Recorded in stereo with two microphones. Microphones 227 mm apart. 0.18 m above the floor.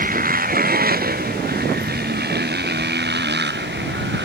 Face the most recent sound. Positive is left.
turn(degrees=-50)  # may be behind; listen again after turning